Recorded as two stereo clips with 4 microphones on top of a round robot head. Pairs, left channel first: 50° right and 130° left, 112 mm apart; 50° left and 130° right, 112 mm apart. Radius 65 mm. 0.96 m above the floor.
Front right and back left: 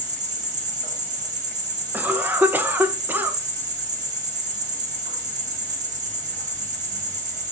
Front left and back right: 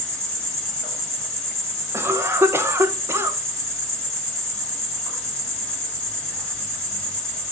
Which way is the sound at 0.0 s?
130° left.